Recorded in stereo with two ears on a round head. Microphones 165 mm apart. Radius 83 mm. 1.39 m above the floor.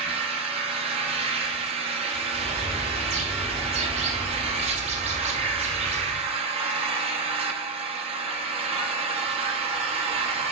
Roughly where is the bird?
Right.